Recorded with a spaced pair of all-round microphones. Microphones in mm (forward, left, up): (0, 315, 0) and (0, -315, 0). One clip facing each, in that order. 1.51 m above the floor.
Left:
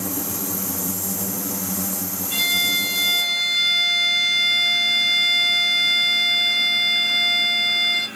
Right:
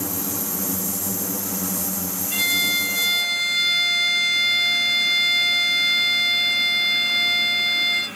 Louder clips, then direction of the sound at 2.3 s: Right 1 dB; 55° left (ahead or behind).